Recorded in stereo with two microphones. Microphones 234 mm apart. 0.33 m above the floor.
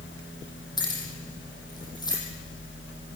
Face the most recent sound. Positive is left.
turn(degrees=15)  # may be behind; listen again after turning